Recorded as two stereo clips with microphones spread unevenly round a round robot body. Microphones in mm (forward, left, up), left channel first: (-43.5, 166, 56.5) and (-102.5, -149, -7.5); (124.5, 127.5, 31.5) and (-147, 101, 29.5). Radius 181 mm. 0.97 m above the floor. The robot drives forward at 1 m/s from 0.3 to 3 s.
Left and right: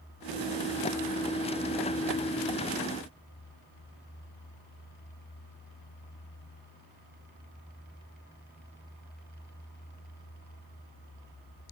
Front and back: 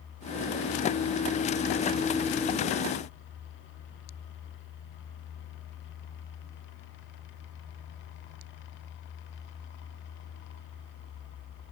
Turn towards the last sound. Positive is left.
No sound to turn to.